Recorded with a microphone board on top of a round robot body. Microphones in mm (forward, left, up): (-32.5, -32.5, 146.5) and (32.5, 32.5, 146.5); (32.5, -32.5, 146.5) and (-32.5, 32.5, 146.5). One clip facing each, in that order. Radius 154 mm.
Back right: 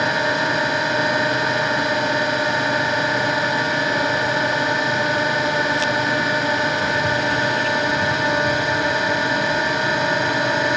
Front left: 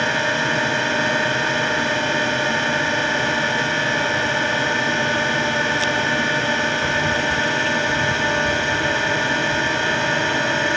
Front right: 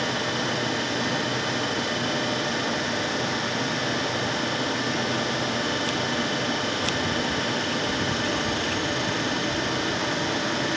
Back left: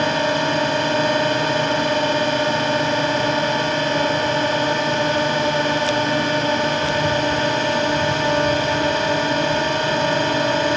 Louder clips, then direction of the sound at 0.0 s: Back right 1 dB, back left 8 dB; 150° left.